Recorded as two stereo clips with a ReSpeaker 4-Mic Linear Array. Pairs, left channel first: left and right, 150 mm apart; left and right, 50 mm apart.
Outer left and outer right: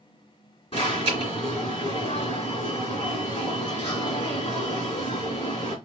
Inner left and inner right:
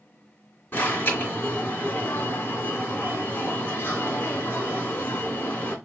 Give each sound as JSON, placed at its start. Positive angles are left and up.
{"t": 0.7, "sound": "an alarm", "side_deg": 40, "distance_m": 2.5}